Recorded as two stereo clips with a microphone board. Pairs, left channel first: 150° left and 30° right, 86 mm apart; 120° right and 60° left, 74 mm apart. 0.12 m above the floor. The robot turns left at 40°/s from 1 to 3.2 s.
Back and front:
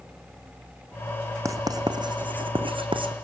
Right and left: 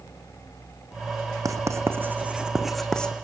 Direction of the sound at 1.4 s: 20° left.